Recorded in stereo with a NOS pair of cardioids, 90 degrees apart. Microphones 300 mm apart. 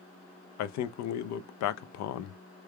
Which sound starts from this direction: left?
A man speaking, at 0.6 s.